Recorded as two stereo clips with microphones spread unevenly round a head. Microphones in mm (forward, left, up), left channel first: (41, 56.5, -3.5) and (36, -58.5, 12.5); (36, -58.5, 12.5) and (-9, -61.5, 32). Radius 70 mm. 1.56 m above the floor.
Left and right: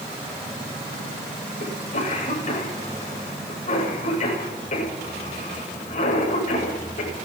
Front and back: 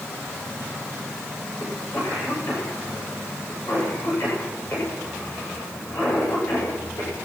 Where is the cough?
65° left, 9.5 m.